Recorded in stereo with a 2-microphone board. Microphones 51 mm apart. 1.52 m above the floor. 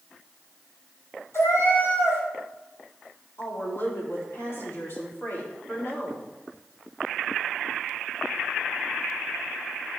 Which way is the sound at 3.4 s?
55° left (ahead or behind).